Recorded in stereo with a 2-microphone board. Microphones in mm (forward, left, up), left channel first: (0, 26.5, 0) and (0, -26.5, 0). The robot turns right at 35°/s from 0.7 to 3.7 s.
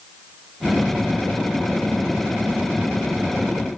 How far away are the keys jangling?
I don't hear keys jangling.